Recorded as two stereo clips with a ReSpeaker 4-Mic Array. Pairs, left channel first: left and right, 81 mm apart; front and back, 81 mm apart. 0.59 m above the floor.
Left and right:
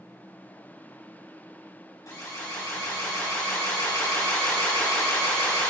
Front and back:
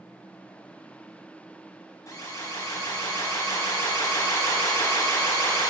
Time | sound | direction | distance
2.1 | an alarm | 45° left | 4 m